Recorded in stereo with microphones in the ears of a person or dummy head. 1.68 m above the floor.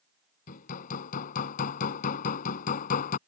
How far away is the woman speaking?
No woman speaking in this recording.